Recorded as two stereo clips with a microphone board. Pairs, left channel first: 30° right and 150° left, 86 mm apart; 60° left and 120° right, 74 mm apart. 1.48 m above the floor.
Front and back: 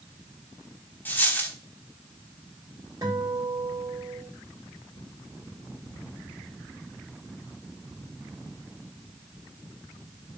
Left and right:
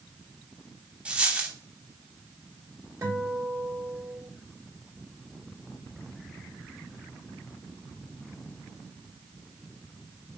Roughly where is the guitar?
Behind.